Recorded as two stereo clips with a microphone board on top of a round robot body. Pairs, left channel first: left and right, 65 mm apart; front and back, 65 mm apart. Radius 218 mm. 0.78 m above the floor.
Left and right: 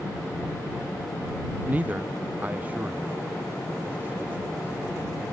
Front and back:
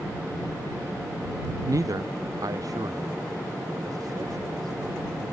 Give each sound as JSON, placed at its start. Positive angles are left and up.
{"t": 1.6, "sound": "a man speaking", "azimuth_deg": -155}